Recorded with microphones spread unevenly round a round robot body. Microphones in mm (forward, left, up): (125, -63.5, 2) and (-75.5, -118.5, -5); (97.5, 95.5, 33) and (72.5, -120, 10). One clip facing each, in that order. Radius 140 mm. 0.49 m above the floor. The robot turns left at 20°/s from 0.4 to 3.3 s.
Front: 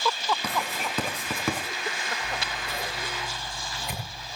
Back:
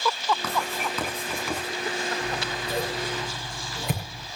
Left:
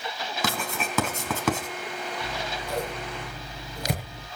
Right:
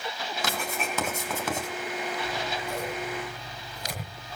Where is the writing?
95° left, 4.5 m; by 1.7 s 70° left, 4.5 m.